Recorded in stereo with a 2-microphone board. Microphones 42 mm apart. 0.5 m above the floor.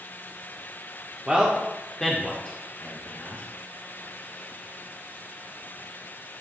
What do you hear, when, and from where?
1.3 s a man speaking: 20° right (ahead or behind), 0.9 m; by 3.4 s 40° left (ahead or behind), 1.8 m